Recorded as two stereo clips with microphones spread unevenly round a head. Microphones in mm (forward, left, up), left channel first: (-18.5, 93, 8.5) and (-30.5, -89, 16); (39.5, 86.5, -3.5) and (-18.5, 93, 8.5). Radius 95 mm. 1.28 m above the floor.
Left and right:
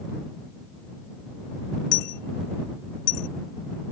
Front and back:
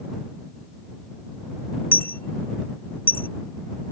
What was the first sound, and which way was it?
A dropped coin, 50° left.